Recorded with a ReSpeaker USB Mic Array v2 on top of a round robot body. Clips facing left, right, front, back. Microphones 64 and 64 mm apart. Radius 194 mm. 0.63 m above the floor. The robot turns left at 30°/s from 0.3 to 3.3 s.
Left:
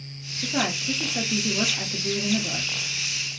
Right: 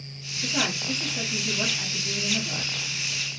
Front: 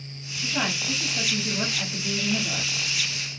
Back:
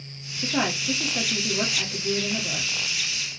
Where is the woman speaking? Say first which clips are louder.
Left 2 dB, back 2 dB; 150° left, 1.5 m; by 2.7 s 80° left, 1.5 m.